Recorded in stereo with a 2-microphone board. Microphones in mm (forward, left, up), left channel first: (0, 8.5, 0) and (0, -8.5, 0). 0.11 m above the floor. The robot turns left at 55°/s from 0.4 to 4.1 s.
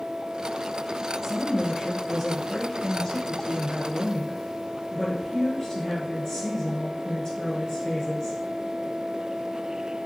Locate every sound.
1.2 s a woman speaking: 150° right, 1.8 m; by 8.4 s 50° left, 1.8 m